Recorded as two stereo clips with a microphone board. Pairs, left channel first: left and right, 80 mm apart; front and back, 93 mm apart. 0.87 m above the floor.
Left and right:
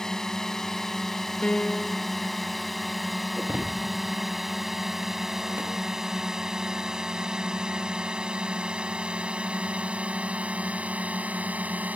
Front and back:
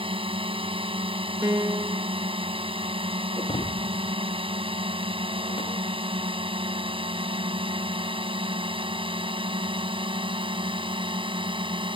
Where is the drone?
175° left; by 11.9 s 160° right.